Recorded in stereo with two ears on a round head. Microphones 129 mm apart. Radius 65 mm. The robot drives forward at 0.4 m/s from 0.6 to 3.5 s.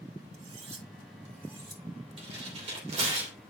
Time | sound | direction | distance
0.3 | cutlery clinking | 50° right (ahead or behind) | 1.4 m
2.2 | tearing paper | 40° right (ahead or behind) | 3 m